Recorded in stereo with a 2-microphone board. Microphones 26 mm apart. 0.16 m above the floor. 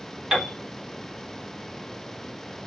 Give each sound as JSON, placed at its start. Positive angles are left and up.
{"t": 0.3, "sound": "a piano", "side_deg": -15, "distance_m": 1.9}